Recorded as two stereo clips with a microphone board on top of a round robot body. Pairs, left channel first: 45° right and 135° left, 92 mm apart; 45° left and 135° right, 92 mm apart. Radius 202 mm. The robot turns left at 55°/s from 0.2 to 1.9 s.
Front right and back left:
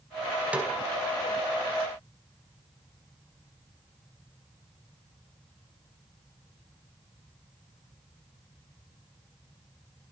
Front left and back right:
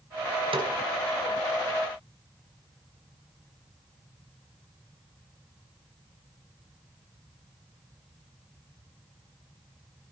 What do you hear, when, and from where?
0.5 s a snare drum: 150° right, 4.5 m; by 0.7 s 160° right, 4.5 m